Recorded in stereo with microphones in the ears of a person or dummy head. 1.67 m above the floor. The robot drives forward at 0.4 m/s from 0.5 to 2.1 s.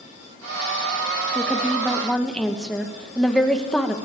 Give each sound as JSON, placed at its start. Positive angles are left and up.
{"t": 1.4, "sound": "a woman speaking", "side_deg": 5, "distance_m": 2.5}